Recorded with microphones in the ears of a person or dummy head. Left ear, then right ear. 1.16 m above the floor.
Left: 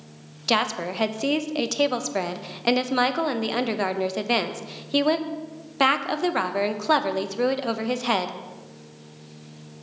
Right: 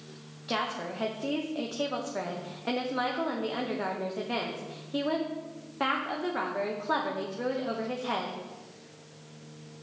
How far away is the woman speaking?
About 0.7 m.